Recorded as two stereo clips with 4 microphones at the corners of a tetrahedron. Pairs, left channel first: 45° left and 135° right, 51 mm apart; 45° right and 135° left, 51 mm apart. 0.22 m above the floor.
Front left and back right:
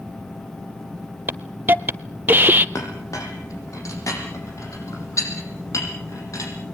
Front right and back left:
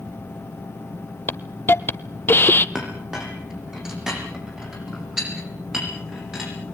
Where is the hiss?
90° right, 0.9 m.